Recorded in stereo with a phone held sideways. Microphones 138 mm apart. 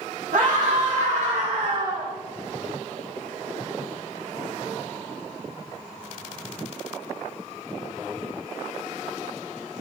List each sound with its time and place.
0.3 s a scream: 75° right (ahead or behind), 1.5 m; by 2.1 s 20° right (ahead or behind), 1.1 m